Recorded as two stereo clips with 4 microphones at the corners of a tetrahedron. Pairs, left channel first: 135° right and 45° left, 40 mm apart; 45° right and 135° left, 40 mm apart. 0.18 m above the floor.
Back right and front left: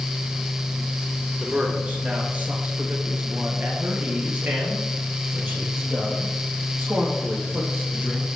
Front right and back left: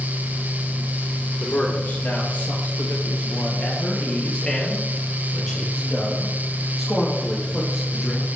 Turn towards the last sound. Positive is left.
turn(degrees=55)